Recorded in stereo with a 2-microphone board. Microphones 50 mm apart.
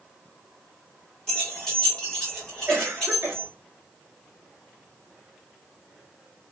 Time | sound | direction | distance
1.3 | keys jangling | 15° left (ahead or behind) | 1.1 m
2.7 | a cough | 50° right (ahead or behind) | 0.8 m